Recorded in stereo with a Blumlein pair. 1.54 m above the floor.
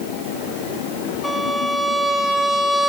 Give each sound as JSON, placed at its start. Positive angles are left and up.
{"t": 1.2, "sound": "a violin", "azimuth_deg": 20, "distance_m": 3.5}